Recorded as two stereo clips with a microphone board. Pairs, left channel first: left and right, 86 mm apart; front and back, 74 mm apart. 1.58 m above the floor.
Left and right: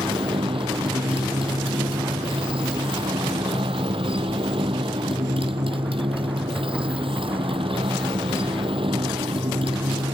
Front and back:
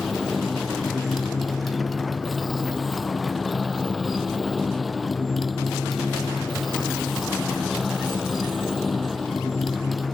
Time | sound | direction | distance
0.0 | a motorcycle | 90° right | ?